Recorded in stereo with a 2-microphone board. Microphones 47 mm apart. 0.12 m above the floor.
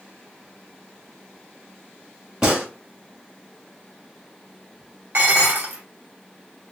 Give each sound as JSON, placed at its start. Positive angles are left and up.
{"t": 2.4, "sound": "a gunshot", "side_deg": -15, "distance_m": 1.8}
{"t": 5.1, "sound": "dishes clattering", "side_deg": -50, "distance_m": 1.6}